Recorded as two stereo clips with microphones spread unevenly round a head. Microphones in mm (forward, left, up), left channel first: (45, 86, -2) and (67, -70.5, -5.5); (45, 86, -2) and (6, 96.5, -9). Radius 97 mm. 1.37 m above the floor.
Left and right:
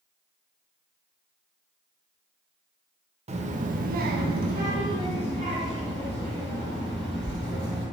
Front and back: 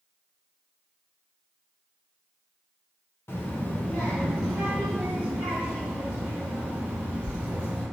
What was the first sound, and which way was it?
A child speaking, 35° right.